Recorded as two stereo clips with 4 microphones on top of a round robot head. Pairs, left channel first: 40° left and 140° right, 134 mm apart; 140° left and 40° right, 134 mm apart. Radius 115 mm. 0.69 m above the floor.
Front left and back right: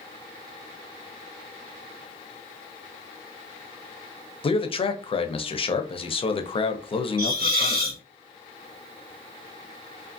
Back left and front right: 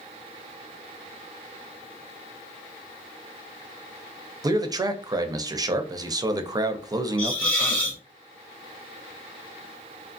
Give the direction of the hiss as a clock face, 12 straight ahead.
5 o'clock.